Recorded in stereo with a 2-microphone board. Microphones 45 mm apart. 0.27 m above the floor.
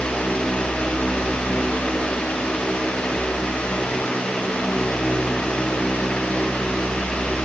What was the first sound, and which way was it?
Only background noise.